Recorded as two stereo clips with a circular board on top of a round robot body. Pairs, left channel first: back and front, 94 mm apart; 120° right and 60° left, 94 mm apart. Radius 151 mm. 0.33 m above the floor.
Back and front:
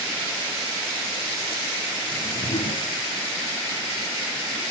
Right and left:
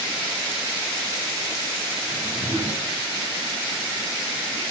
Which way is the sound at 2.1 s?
135° left.